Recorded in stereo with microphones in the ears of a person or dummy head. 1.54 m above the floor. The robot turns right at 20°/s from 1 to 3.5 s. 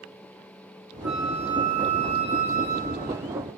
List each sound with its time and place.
1.0 s a flute: straight behind, 2.5 m; by 3.1 s 135° right, 2.5 m